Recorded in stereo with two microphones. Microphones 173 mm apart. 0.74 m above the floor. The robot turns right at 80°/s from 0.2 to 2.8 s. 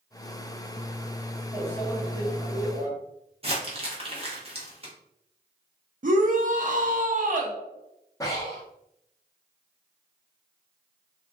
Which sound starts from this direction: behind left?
A microwave, at 1.5 s.